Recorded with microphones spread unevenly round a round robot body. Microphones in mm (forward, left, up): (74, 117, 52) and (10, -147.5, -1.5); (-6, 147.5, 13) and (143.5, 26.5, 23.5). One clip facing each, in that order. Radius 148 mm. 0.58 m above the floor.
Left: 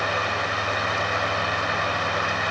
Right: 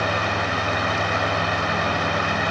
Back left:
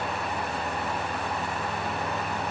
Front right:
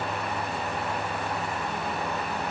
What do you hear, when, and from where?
Only background noise.